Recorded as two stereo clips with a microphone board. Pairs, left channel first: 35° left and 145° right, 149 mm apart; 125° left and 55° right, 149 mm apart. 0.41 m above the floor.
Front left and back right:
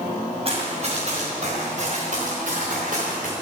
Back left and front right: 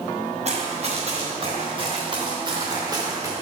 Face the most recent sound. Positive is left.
turn(degrees=-125)